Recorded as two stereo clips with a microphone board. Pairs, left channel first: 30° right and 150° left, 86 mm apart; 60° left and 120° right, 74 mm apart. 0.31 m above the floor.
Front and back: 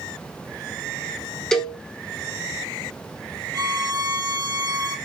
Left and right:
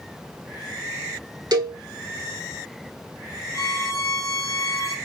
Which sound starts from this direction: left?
A violin, at 3.5 s.